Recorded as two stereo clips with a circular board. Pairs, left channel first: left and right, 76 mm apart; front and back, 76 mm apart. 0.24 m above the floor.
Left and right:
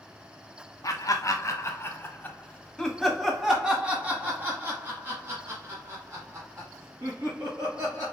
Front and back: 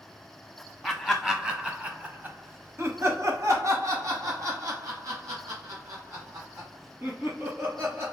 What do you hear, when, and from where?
0.8 s laughter: 90° left, 1.4 m; by 8.1 s 135° right, 3.5 m